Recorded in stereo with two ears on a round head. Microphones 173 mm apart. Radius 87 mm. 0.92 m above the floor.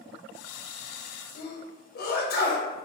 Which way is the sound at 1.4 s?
50° left (ahead or behind).